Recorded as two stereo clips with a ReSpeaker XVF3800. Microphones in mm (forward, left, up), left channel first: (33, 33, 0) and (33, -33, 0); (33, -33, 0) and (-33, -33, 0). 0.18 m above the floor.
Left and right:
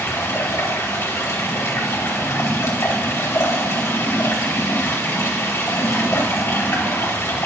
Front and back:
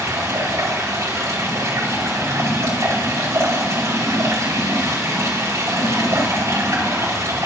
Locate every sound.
0.0 s running water: 140° left, 4 m